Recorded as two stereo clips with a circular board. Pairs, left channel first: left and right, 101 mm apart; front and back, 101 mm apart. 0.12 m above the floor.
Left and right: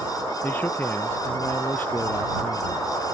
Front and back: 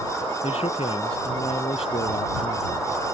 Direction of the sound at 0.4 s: 20° left.